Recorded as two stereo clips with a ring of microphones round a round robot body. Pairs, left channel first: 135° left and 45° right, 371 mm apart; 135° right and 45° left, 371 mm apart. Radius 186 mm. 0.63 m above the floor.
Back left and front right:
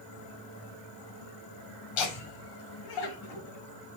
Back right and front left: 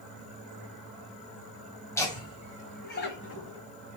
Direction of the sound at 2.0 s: 145° left.